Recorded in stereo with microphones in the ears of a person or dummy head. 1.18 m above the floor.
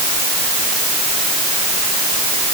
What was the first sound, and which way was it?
Only background noise.